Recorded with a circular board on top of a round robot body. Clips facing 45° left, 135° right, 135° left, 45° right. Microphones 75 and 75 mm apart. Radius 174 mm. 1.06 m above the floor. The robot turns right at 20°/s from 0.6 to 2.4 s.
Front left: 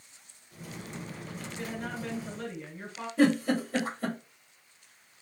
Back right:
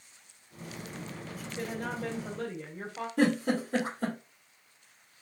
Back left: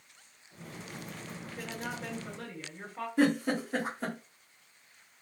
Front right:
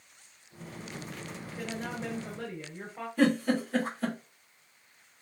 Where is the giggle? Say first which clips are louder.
Front left 2 dB, front right 2 dB; 155° right, 1.4 m.